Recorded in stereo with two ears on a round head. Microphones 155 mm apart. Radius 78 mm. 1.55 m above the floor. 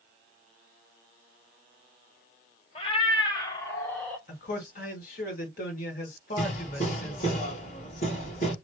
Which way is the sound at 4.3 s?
50° left (ahead or behind).